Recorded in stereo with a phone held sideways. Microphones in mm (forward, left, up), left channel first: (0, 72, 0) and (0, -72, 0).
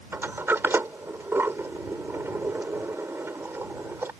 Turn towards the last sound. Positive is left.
turn(degrees=-15)  # may be behind; listen again after turning